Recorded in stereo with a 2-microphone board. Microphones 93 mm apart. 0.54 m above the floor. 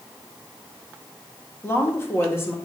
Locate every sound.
1.6 s a woman speaking: 25° left (ahead or behind), 1.4 m